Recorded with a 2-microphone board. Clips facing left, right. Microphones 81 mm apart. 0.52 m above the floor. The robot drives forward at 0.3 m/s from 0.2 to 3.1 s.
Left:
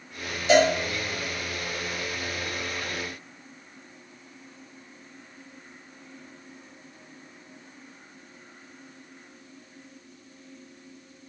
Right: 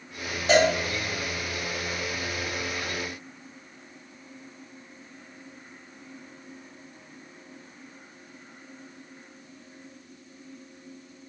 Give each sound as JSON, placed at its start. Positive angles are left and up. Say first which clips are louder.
{"t": 0.5, "sound": "a cowbell", "louder": "left 1 dB", "side_deg": -45, "distance_m": 1.6}